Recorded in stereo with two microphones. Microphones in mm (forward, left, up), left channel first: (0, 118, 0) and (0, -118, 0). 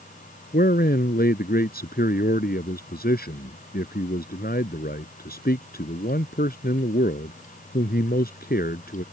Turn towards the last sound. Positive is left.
turn(degrees=40)  # may be behind; listen again after turning